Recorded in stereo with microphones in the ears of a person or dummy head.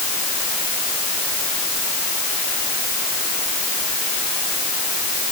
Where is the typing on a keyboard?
I don't hear typing on a keyboard.